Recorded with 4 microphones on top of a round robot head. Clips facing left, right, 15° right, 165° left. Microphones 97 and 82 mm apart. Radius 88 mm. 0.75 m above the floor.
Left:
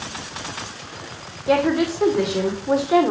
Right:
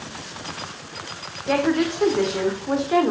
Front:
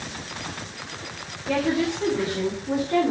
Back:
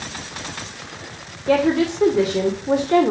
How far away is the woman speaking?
About 2.5 m.